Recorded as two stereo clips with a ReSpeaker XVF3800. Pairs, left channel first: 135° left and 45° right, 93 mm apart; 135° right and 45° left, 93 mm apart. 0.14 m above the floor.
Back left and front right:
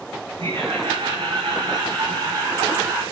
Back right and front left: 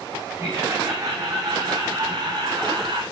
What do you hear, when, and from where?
0.4 s laughter: 15° right, 7 m; by 3.0 s 15° left, 5 m